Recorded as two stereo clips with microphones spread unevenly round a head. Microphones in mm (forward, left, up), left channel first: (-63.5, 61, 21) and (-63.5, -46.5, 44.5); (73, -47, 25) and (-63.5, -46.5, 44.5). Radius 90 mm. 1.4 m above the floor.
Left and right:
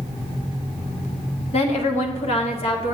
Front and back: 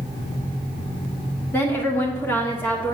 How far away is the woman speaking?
About 1.0 m.